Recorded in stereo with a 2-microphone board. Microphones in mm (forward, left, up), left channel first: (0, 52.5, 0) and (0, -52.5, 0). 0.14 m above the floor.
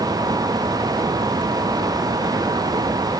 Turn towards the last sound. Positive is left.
No sound to turn to.